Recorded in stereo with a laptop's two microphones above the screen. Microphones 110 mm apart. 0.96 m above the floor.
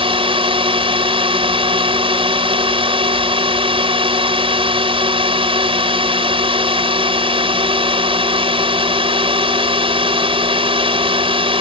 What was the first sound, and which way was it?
A drone, 55° right (ahead or behind).